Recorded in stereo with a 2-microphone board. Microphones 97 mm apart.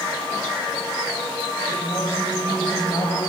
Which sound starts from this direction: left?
A woman speaking, at 1.7 s.